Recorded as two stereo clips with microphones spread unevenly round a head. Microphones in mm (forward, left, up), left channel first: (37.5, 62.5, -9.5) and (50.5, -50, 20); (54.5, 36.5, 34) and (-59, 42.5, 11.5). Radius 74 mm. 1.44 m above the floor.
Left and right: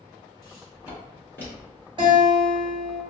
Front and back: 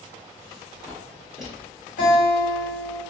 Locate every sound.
0.4 s footsteps: 35° left, 2.0 m; by 1.9 s 125° right, 1.4 m
2.0 s a guitar: 40° right, 1.1 m